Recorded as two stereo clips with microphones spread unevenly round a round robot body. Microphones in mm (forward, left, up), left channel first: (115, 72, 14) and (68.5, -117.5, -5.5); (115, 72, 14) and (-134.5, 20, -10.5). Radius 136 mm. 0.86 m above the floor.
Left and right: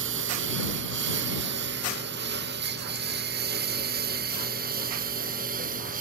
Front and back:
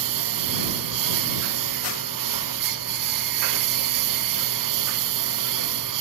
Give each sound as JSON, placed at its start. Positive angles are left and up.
{"t": 0.0, "sound": "a lawn mower", "azimuth_deg": -155}